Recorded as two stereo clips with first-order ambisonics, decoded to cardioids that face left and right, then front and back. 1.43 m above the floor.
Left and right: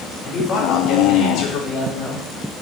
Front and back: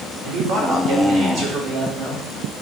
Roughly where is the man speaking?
Behind left.